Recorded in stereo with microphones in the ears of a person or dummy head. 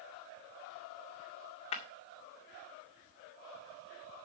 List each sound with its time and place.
1.7 s breaking glass: 35° left (ahead or behind), 1.9 m